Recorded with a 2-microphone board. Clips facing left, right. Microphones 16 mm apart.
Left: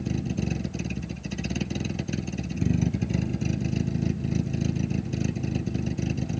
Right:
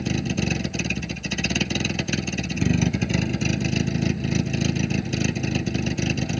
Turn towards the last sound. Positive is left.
turn(degrees=-40)  # may be behind; listen again after turning